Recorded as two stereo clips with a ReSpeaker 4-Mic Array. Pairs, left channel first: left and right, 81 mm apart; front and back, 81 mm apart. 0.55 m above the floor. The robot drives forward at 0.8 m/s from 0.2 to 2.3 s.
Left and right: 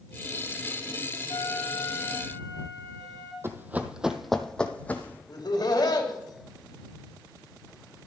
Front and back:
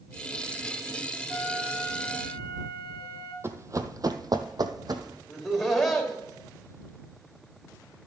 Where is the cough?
I don't hear a cough.